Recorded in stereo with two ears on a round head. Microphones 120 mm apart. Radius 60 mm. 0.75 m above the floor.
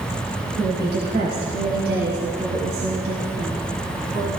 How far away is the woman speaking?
About 4.5 m.